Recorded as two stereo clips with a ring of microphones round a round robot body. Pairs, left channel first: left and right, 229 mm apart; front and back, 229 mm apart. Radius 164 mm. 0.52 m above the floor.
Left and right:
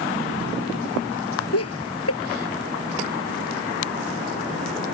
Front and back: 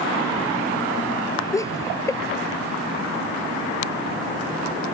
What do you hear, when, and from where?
1.5 s laughter: 75° left